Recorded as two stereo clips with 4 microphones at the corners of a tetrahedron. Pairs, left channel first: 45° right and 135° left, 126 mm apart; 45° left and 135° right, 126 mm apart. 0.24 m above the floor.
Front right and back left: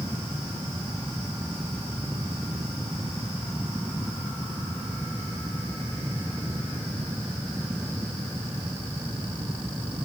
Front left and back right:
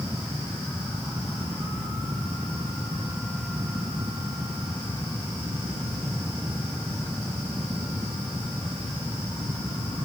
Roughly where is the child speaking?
No child speaking in this recording.